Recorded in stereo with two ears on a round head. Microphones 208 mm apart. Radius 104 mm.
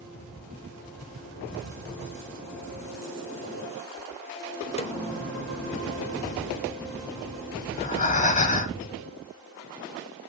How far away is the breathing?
About 1.1 m.